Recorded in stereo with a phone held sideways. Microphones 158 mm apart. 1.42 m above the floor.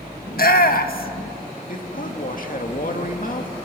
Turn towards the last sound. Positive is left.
turn(degrees=60)  # may be behind; listen again after turning